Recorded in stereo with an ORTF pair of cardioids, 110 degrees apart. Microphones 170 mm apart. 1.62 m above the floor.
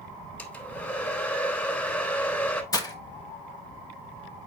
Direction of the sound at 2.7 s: 20° left.